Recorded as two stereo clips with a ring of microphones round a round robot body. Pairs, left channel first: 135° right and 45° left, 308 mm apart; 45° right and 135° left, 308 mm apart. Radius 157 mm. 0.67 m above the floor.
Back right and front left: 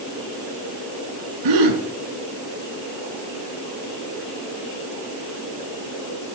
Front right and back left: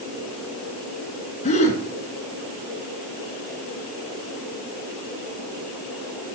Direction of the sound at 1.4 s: 25° left.